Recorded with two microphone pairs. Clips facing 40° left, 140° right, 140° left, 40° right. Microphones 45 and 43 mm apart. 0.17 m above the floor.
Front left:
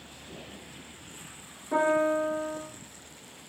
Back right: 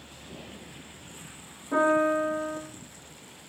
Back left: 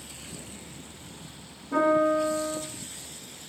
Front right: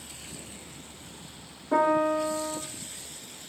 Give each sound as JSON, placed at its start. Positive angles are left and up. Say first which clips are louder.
{"t": 1.7, "sound": "a piano", "louder": "back right 2 dB, back left 1 dB", "azimuth_deg": -45, "distance_m": 3.0}